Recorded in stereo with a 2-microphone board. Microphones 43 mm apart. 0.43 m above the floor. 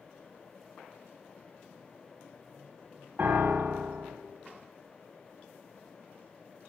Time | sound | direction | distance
3.2 | a piano | 40° right (ahead or behind) | 1.4 m